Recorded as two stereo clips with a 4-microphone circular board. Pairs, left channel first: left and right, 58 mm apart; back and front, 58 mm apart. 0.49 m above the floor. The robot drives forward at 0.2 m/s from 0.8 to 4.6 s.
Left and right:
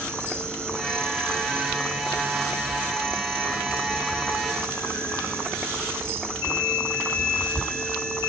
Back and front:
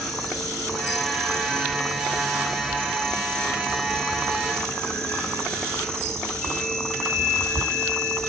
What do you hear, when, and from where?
0.0 s an insect: 95° right, 3 m; by 8.3 s 115° right, 3 m